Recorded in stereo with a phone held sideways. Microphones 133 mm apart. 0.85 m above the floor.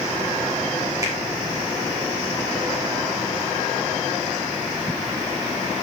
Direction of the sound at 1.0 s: 25° right (ahead or behind).